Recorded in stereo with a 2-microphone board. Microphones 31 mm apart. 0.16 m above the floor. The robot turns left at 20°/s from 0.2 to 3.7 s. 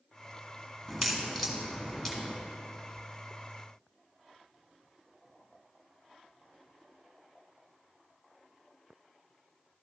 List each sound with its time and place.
0.9 s a crack: centre (ahead or behind), 1.5 m; by 2.4 s 10° left (ahead or behind), 1.5 m